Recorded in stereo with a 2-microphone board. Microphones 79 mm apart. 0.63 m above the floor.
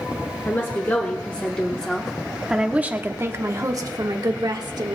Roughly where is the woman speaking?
Left.